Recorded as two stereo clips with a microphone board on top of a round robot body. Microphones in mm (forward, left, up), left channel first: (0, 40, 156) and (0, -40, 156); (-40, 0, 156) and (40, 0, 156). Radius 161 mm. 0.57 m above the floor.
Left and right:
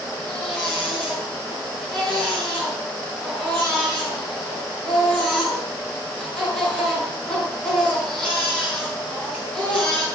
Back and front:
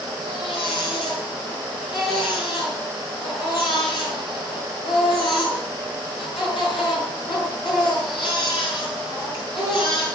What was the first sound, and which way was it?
A baby crying, 170° left.